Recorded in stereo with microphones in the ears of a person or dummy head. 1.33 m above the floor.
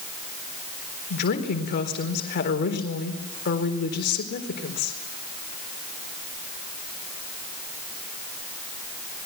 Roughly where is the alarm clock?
No alarm clock in this recording.